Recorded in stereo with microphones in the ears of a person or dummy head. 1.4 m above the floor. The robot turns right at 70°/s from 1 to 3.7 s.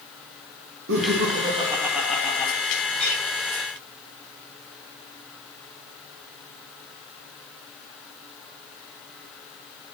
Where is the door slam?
I don't hear a door slam.